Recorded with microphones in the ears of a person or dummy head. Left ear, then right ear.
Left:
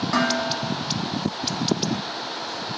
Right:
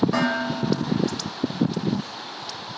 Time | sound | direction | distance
0.1 | dishes clattering | 10° left (ahead or behind) | 1.0 m